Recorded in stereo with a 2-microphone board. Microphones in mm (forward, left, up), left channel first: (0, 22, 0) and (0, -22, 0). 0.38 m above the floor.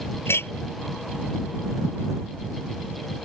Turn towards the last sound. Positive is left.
turn(degrees=65)  # may be behind; listen again after turning